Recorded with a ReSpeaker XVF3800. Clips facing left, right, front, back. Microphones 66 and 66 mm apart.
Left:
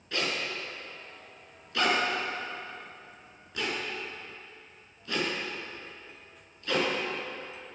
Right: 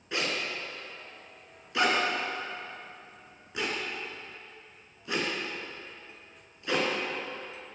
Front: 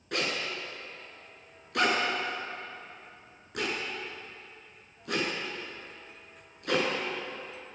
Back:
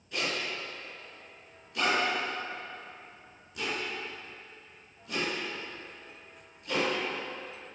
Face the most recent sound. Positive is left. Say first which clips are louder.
# even, front 1 dB
turn(degrees=-20)